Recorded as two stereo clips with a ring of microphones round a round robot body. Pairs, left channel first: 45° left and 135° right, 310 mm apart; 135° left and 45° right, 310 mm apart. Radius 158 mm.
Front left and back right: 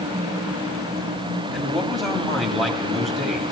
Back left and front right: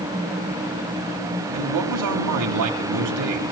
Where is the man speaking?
45° right, 2.5 m.